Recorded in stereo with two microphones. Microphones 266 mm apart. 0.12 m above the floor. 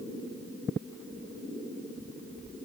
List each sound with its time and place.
Only background noise.